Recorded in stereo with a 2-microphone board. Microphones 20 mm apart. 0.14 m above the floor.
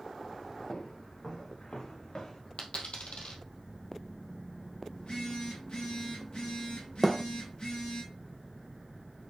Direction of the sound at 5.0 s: 55° left (ahead or behind).